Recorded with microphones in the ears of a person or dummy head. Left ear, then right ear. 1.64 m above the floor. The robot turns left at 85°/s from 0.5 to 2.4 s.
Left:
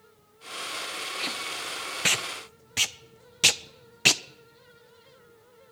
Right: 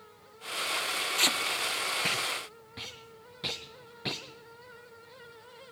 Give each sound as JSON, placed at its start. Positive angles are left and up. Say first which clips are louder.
{"t": 1.2, "sound": "tape being pulled", "louder": "right 7 dB", "side_deg": -40, "distance_m": 0.6}